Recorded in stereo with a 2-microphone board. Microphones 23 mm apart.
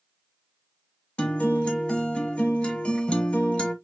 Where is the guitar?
50° left (ahead or behind), 1.6 m.